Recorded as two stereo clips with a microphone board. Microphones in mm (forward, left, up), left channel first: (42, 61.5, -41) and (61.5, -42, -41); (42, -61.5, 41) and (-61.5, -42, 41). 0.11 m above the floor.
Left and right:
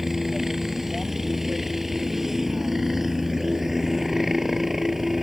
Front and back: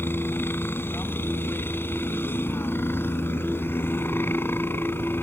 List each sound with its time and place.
0.0 s a helicopter: 5° left